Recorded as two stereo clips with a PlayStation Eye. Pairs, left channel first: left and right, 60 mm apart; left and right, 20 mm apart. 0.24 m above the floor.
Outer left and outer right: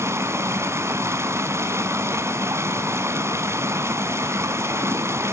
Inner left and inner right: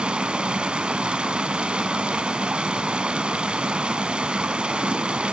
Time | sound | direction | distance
0.0 | running water | 50° right (ahead or behind) | 0.9 m